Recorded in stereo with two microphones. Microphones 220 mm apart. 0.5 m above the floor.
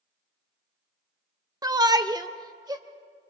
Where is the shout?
15° right (ahead or behind), 0.7 m; by 2.8 s 20° right (ahead or behind), 1.4 m.